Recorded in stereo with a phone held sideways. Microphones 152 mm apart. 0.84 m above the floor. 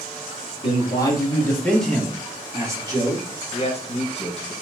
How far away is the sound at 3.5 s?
About 0.9 m.